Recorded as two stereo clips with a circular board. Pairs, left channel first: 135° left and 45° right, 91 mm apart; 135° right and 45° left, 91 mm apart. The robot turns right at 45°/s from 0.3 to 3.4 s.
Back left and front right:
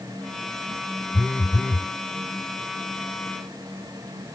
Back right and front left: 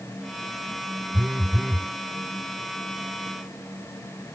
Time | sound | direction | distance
1.1 | a phone buzzing | 100° left | ?